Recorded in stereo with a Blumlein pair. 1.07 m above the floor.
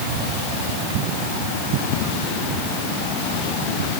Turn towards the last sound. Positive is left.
No sound to turn to.